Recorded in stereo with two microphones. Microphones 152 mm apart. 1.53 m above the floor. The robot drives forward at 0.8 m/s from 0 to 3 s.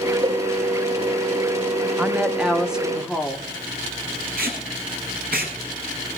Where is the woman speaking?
10° right (ahead or behind), 0.9 m; by 3.5 s 5° right (ahead or behind), 1.7 m.